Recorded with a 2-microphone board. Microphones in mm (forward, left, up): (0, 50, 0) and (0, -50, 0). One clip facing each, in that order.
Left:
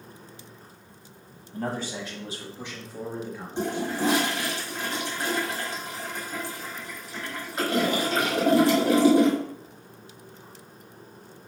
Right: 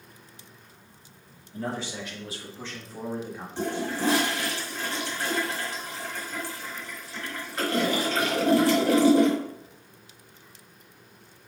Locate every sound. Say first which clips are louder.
1.5 s a man speaking: left 2 dB; 50° left (ahead or behind), 1.6 m; by 3.5 s 25° right (ahead or behind), 1.1 m
3.6 s a toilet flushing: left 1 dB; 25° left (ahead or behind), 1.5 m